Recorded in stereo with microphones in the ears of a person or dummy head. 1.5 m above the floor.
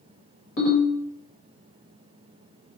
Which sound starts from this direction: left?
A ringtone, at 0.6 s.